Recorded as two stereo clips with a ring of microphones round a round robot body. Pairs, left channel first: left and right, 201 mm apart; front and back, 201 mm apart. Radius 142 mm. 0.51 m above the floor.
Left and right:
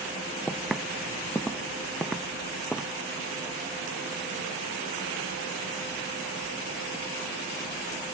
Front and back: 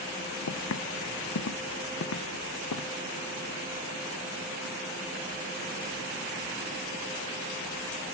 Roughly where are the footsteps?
Ahead.